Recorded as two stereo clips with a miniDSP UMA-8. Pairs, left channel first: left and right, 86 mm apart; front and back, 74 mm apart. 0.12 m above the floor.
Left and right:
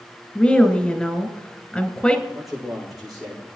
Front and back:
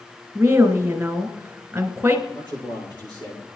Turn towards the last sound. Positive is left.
turn(degrees=-5)